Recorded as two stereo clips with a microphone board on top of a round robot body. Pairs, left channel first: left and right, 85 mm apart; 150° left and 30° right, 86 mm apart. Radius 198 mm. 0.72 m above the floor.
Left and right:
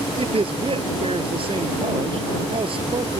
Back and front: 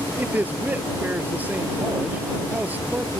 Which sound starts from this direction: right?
A man speaking, at 0.2 s.